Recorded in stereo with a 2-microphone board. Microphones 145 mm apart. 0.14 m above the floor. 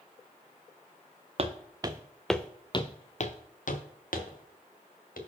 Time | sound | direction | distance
1.4 | footsteps | 45° right (ahead or behind) | 0.9 m